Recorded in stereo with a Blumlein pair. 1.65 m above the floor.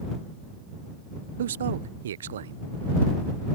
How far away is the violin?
I don't hear a violin.